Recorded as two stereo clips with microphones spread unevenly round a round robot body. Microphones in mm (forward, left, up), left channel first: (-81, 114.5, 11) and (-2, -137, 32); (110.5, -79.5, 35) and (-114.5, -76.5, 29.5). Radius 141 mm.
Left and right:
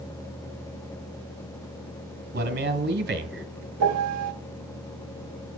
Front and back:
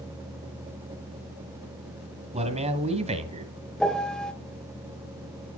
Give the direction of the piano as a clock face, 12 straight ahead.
3 o'clock.